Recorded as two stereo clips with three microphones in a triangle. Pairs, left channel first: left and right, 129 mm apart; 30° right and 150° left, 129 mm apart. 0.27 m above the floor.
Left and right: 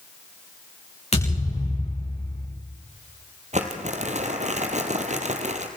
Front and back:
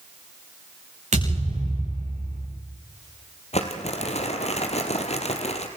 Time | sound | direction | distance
1.1 | a thud | 125° left | 8.5 m
3.5 | crumpling | 65° right | 2.5 m